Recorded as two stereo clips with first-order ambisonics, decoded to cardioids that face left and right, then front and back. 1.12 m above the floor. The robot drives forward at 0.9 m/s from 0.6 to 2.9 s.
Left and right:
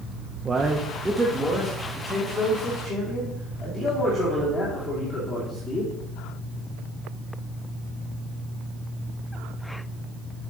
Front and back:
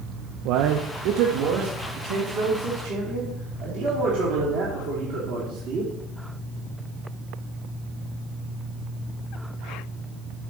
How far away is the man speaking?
About 0.6 m.